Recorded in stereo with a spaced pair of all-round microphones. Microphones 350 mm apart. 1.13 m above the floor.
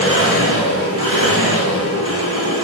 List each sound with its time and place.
0.0 s an engine running: 40° right (ahead or behind), 3.5 m